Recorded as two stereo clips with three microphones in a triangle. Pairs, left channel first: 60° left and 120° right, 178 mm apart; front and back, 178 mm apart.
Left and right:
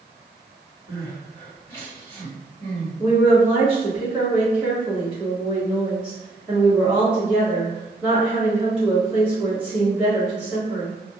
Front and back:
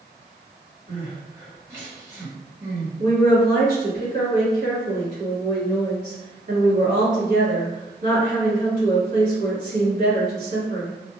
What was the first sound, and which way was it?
Crying, 115° left.